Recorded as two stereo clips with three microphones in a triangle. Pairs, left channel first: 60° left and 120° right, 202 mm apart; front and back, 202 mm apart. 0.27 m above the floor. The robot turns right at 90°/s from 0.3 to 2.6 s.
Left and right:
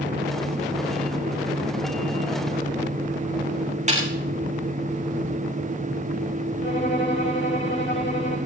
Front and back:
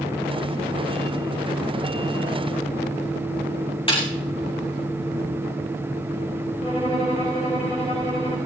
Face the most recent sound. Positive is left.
turn(degrees=55)